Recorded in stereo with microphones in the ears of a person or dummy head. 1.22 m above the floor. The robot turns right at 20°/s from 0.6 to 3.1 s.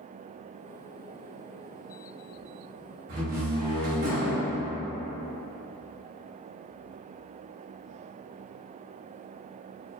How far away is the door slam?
About 1.2 m.